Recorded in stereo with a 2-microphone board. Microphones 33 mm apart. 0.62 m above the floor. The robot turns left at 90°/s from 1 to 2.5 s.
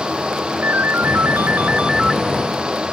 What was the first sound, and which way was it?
A ringtone, 70° right.